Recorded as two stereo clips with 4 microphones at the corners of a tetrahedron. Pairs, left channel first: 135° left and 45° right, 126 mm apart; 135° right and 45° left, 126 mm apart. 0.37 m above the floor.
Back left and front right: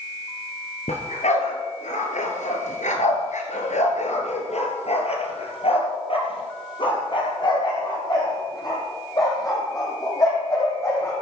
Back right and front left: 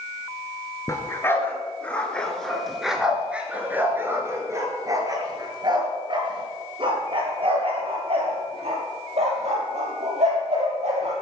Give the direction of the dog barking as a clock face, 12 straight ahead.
7 o'clock.